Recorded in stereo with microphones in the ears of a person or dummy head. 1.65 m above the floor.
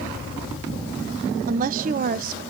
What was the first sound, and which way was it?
A woman speaking, 45° right (ahead or behind).